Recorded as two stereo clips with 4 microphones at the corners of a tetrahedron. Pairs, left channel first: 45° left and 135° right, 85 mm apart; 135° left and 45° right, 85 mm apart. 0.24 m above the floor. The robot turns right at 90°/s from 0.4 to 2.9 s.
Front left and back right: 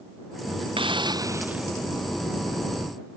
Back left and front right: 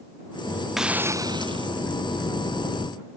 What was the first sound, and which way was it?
A hiss, 135° right.